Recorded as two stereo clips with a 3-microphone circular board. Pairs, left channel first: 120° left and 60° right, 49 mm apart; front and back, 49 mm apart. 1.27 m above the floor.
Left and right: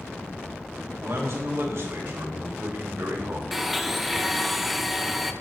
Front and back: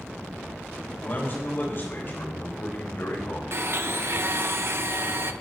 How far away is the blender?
About 0.7 m.